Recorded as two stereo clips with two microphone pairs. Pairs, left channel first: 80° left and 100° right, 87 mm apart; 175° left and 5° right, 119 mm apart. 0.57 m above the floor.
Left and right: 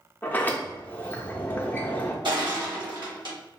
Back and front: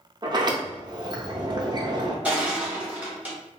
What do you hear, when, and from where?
0.2 s a sliding door: 20° left, 0.5 m
2.2 s crushing: 85° right, 1.0 m